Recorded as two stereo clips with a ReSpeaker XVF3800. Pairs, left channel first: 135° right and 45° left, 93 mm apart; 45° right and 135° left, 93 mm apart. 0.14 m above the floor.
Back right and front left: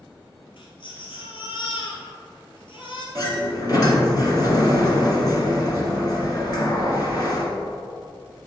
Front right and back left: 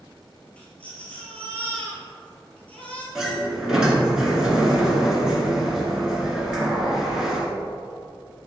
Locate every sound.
0.6 s a baby crying: 120° right, 2 m
3.1 s a sliding door: 145° right, 1.6 m